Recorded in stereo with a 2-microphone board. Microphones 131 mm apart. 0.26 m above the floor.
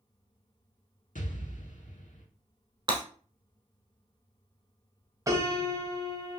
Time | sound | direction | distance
1.1 | an explosion | 75° left (ahead or behind) | 0.6 m
2.9 | breaking glass | 35° right (ahead or behind) | 1.3 m
5.3 | a piano | 25° right (ahead or behind) | 0.6 m